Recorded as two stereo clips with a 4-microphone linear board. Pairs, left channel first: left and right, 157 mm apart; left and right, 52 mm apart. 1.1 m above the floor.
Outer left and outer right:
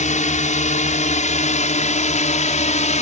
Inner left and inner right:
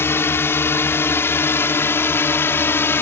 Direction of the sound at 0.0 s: 50° left (ahead or behind).